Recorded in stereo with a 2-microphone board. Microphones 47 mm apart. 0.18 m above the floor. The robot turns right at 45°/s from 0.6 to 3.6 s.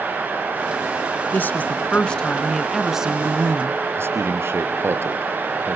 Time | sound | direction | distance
1.3 | a woman speaking | 120° left | 2 m
4.0 | a man speaking | 60° right (ahead or behind) | 3.5 m